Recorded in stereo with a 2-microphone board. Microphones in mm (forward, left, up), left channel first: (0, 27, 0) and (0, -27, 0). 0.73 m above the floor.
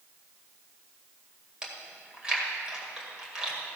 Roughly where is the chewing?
Centre.